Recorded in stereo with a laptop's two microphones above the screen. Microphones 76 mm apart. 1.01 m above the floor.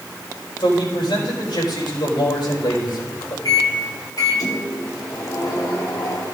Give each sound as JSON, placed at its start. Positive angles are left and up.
{"t": 0.6, "sound": "a man speaking", "side_deg": 80, "distance_m": 5.0}
{"t": 3.5, "sound": "a microwave", "side_deg": 55, "distance_m": 2.0}